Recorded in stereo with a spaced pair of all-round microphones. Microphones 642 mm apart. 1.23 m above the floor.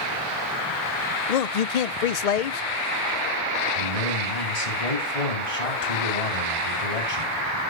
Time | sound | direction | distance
1.3 | a man speaking | 75° left (ahead or behind) | 0.6 m
3.8 | a man speaking | 75° left (ahead or behind) | 3 m